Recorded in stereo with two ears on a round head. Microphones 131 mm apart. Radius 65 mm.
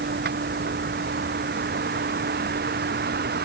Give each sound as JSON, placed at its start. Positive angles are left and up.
{"t": 0.0, "sound": "a vehicle", "side_deg": -80}